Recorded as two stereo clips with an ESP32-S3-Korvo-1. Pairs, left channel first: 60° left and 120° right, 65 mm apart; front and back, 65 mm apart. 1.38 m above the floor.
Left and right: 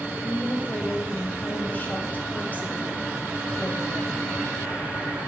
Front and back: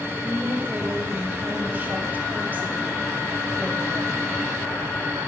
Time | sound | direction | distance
0.1 | a woman speaking | 120° left | 0.8 m